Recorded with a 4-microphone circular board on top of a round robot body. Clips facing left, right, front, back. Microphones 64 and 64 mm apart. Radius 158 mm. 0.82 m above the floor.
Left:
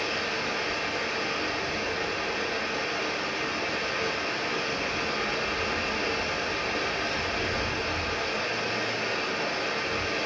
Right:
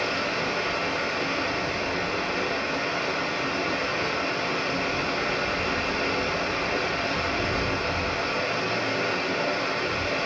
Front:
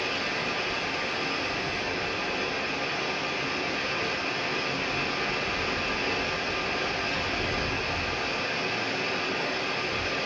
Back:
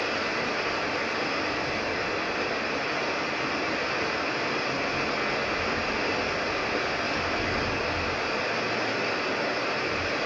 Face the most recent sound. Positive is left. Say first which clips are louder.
# right 3 dB, back 2 dB
turn(degrees=-135)